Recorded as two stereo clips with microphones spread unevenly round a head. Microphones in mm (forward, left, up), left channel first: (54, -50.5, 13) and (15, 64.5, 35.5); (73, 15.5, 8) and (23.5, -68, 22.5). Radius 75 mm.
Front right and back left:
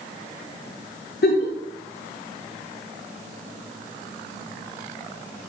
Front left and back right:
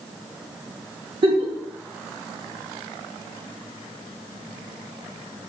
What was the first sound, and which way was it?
A giggle, 105° right.